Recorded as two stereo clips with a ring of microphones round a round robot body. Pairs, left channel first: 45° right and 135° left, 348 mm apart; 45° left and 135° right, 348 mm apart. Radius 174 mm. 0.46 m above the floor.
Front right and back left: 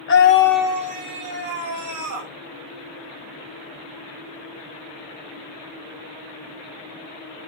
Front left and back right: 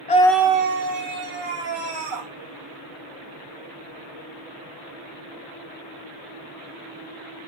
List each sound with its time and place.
0.1 s a scream: 15° right, 0.8 m; by 2.3 s 175° right, 2.5 m